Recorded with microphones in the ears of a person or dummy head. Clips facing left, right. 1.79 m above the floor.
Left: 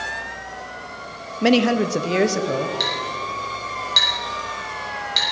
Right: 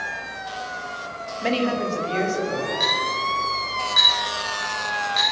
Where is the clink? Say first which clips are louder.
Right 1 dB; 50° left (ahead or behind), 6.5 m.